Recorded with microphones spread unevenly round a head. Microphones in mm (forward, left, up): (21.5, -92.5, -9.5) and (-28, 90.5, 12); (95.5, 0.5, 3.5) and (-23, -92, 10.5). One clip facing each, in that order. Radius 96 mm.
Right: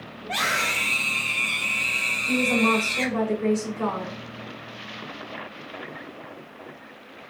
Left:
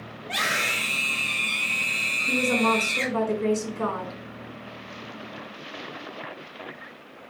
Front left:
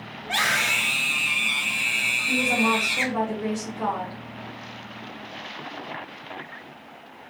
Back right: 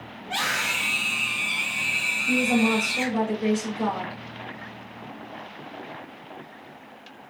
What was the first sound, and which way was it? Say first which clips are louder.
A scream: right 2 dB, front left 2 dB; 40° left.